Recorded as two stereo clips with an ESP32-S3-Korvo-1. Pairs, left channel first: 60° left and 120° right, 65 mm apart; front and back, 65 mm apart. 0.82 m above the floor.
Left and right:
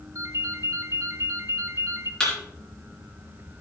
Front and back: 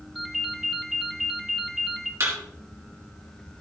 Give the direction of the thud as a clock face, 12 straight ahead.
7 o'clock.